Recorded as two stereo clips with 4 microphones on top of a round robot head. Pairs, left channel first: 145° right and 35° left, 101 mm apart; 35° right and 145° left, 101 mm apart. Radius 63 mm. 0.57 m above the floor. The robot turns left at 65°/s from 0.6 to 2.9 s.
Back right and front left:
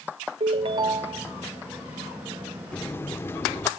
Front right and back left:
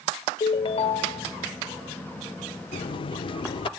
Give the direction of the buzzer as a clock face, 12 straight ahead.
2 o'clock.